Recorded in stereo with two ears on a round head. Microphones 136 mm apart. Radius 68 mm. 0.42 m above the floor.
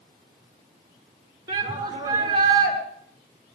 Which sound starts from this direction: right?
A shout, at 1.5 s.